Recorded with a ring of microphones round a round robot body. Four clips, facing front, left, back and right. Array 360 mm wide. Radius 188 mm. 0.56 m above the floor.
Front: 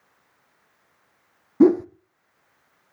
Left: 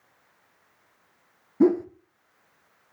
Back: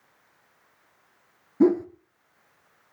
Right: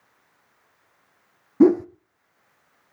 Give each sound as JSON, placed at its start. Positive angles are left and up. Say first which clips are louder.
{"t": 1.6, "sound": "a whoosh", "louder": "right 4 dB, front 4 dB", "azimuth_deg": -45, "distance_m": 0.7}